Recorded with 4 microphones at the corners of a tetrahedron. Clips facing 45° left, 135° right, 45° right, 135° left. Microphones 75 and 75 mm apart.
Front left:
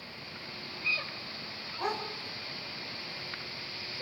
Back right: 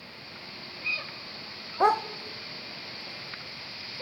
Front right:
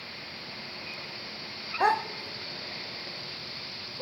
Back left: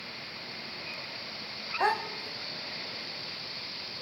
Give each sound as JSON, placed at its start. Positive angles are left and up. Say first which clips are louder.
{"t": 1.8, "sound": "a dog barking", "louder": "back right 11 dB, front right 3 dB", "azimuth_deg": -130, "distance_m": 0.5}